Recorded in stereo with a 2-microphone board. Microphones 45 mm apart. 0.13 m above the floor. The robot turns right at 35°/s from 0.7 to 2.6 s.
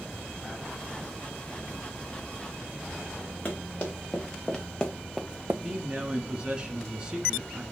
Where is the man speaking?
20° right (ahead or behind), 1.6 m.